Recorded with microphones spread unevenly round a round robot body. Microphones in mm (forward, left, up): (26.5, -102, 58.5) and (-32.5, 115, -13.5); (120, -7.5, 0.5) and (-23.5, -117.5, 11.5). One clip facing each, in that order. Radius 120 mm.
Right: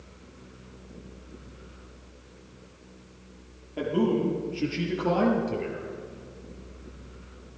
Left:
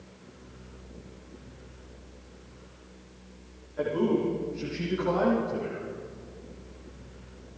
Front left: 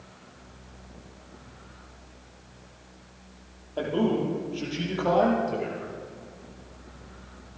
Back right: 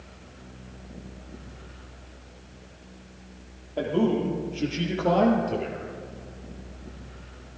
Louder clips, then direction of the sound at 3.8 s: Right 1 dB, back right 1 dB; 65° right.